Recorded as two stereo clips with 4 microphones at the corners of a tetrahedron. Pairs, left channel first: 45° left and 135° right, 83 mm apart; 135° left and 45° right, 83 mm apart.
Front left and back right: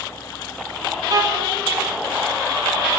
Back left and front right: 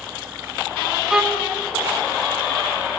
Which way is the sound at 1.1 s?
125° right.